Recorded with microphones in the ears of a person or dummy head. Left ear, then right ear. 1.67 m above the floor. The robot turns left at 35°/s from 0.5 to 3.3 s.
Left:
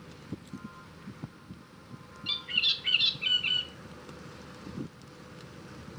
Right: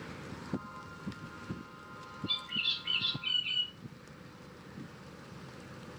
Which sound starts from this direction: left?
A bird, at 2.3 s.